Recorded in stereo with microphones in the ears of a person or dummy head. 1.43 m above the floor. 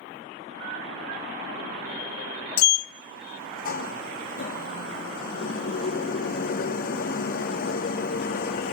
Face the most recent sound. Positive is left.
turn(degrees=45)  # may be behind; listen again after turning